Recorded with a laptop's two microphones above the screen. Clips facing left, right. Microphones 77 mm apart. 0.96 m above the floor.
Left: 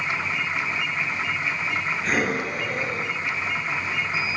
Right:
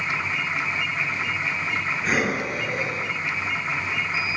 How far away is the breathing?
About 6 m.